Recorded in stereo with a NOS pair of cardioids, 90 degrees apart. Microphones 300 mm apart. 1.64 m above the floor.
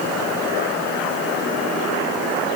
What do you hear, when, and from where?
Only background noise.